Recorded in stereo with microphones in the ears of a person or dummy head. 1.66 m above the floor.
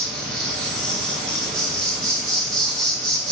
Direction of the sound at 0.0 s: 5° right (ahead or behind).